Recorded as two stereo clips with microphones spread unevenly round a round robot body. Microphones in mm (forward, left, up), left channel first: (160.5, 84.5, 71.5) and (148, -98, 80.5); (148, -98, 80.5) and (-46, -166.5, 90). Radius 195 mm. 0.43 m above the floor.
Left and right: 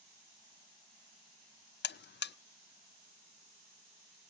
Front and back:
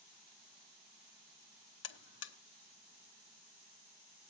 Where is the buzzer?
50° left, 0.5 m.